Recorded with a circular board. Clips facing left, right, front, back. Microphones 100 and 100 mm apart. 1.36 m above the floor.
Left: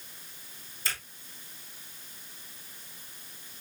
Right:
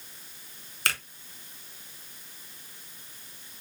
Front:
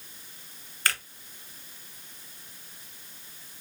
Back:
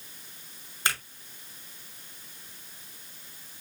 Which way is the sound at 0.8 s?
115° right.